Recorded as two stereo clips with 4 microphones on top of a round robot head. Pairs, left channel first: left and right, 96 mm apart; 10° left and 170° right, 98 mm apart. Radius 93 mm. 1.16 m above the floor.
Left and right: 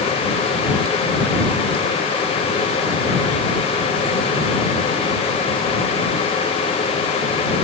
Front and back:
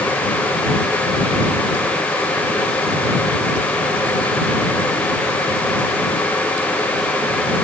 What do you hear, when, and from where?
Only background noise.